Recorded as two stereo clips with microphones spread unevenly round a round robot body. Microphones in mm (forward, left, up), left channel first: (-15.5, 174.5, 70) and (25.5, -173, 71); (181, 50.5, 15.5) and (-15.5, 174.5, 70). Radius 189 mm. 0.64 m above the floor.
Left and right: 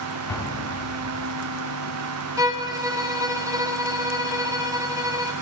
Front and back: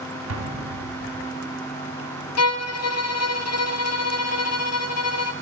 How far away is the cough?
I don't hear a cough.